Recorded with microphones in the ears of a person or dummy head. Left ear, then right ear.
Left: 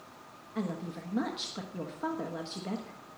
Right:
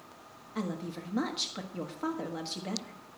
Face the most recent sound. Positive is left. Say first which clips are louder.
# even
turn(degrees=-15)  # may be behind; listen again after turning